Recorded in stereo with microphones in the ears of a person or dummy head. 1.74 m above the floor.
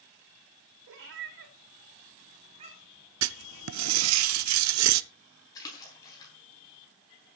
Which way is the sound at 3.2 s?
75° right (ahead or behind).